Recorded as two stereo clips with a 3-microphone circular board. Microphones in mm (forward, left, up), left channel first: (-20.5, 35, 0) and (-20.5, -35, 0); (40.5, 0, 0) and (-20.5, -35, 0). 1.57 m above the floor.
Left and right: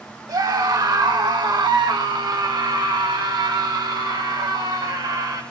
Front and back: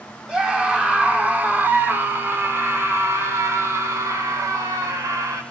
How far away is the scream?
About 4 m.